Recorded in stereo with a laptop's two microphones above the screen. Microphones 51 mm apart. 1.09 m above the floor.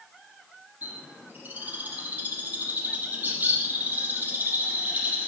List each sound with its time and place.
0.8 s a bird: 35° right (ahead or behind), 5.5 m